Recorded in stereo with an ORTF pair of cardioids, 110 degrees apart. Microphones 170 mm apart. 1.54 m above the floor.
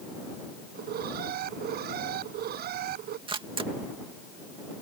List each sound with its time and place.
0.8 s an alarm: 65° right
3.3 s a camera shutter: 30° right